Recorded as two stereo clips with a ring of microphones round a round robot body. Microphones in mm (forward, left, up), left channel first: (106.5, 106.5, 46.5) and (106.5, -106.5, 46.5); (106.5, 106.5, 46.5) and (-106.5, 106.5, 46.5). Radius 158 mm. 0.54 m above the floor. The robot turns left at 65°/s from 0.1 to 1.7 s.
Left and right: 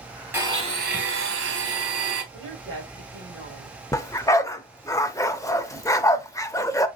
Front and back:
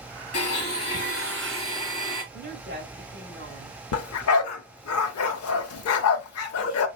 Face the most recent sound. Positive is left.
turn(degrees=10)